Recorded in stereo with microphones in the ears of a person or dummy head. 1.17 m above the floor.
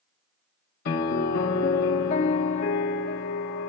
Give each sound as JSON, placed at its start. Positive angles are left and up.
{"t": 0.8, "sound": "a piano", "side_deg": 55, "distance_m": 0.9}